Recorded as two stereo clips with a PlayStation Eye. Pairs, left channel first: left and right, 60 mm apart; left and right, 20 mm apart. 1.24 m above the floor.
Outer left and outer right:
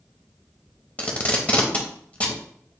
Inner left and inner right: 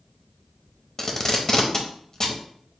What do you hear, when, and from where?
1.0 s tape being pulled: 25° left (ahead or behind), 0.8 m